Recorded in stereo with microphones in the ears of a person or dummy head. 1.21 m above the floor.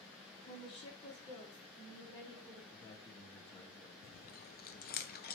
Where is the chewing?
45° left (ahead or behind), 0.6 m.